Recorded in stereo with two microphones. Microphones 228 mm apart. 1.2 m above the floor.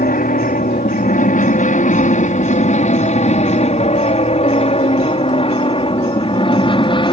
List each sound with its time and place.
0.0 s an aircraft: 40° left (ahead or behind); by 7.1 s 20° left (ahead or behind)